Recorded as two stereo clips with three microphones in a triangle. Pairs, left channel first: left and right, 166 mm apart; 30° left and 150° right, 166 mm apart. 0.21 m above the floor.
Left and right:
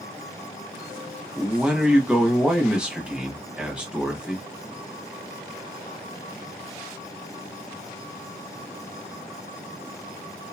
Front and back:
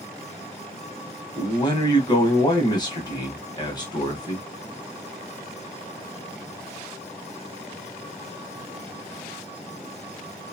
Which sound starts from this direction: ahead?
A man speaking, at 1.4 s.